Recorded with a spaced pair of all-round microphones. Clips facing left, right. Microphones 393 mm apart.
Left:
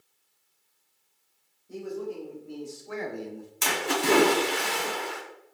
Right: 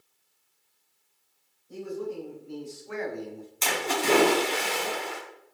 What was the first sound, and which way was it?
A man speaking, 75° left (ahead or behind).